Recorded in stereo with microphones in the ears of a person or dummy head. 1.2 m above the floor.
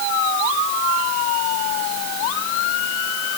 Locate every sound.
Only background noise.